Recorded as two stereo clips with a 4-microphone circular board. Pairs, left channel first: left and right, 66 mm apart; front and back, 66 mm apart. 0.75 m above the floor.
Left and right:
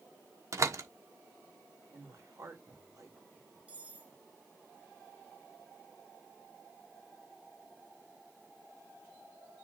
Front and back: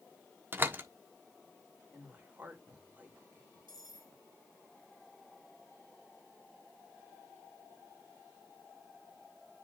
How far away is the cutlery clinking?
About 3 m.